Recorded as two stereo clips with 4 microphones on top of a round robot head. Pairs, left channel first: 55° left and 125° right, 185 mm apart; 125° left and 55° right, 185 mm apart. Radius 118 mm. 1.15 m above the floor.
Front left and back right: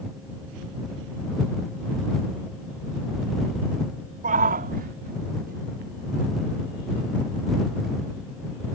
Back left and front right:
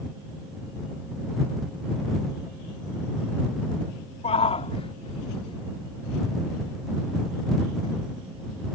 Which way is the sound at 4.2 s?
175° right.